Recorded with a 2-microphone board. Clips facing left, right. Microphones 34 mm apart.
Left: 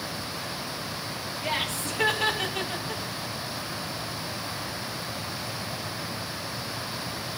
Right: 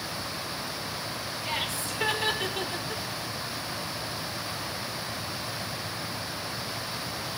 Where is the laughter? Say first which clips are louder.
Left 3 dB; 75° left (ahead or behind), 3.5 m; by 3.0 s 30° left (ahead or behind), 1.9 m.